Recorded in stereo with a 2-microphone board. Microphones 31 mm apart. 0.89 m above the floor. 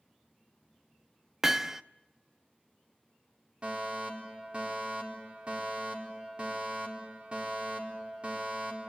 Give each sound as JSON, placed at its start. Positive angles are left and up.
{"t": 1.4, "sound": "hammering", "side_deg": -15, "distance_m": 0.5}
{"t": 3.6, "sound": "a fire alarm", "side_deg": -35, "distance_m": 4.0}